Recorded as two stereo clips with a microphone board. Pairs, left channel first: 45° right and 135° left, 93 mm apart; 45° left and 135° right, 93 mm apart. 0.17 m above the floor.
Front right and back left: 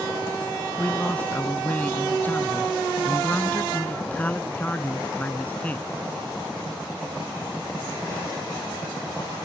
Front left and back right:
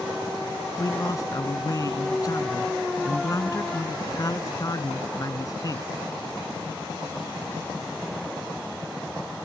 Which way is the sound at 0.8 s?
20° left.